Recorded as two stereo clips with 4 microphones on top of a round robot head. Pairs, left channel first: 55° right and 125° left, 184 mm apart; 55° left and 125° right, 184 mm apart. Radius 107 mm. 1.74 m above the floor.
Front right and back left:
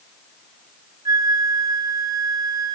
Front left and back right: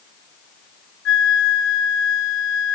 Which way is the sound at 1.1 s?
55° left.